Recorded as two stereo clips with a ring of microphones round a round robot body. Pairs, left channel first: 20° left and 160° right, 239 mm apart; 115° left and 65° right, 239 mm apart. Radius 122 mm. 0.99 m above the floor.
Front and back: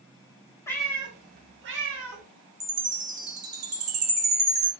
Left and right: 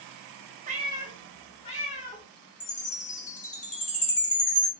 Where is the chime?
175° left, 1.0 m.